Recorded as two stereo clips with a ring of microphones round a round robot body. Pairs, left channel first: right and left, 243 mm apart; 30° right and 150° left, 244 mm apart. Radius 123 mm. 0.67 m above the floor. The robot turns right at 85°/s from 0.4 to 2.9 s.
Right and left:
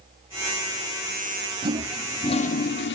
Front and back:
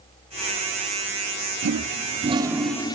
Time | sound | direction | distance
1.6 | a toilet flushing | 150° left | 1.0 m